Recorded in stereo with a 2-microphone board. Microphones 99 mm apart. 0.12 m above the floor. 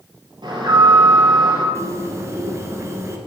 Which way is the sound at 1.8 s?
30° right (ahead or behind).